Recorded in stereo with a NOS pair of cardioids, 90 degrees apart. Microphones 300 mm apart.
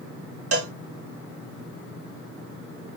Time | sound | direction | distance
0.5 | a cowbell | 55° right | 1.4 m